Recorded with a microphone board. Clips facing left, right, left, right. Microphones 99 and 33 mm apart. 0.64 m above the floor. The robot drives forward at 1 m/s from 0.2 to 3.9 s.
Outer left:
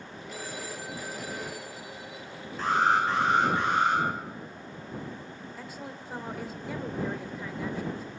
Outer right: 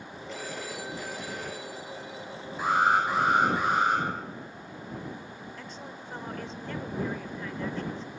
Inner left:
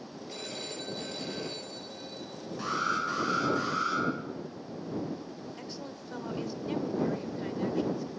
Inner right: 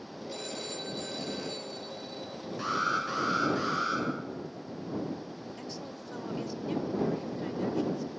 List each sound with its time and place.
0.3 s a phone ringing: 5° left (ahead or behind), 7.5 m
2.6 s an alarm: 10° right (ahead or behind), 7 m
5.6 s a woman speaking: 10° left (ahead or behind), 1.9 m